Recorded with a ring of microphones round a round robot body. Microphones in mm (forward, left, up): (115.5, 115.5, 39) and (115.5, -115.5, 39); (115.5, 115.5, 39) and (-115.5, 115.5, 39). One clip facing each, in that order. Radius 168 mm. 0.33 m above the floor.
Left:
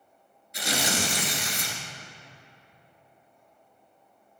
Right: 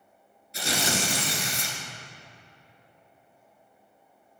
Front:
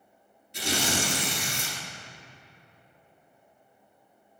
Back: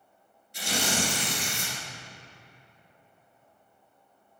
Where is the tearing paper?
25° right, 2 m.